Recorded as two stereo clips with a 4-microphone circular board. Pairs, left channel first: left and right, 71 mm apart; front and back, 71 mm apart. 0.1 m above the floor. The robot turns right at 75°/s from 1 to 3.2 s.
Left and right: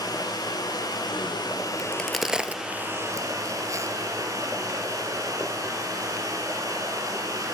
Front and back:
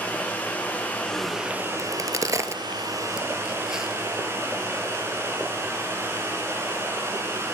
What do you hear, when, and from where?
0.0 s running water: 65° left, 4 m; by 7.5 s 130° right, 4 m
1.8 s a crack: 155° left, 0.9 m; by 4.0 s 100° right, 0.9 m